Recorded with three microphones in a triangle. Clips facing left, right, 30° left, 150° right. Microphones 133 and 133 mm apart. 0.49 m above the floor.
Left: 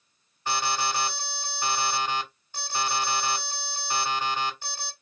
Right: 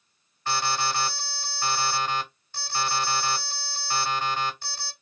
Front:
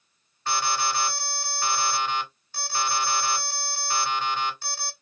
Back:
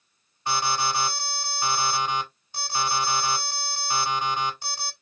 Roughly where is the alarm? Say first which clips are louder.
Right 1 dB, back 1 dB; behind left.